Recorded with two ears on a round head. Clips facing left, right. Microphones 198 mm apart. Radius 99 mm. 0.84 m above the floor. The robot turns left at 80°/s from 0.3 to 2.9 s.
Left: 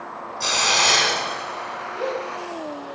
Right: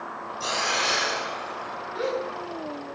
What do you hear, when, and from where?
0.4 s a hiss: 145° left, 1.0 m; by 1.9 s 30° left, 1.0 m
1.9 s a gasp: 35° right (ahead or behind), 8.5 m; by 2.2 s 10° right (ahead or behind), 8.5 m